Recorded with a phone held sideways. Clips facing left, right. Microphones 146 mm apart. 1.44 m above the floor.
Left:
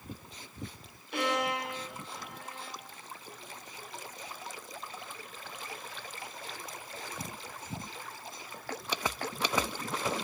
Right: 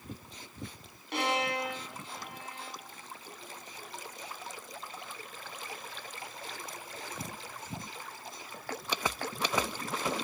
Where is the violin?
80° right, 8 m.